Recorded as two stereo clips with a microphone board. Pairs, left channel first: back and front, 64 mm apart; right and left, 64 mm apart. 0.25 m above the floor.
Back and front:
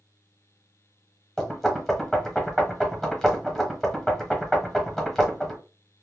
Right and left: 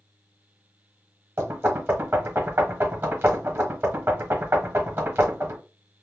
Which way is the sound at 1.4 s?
105° left.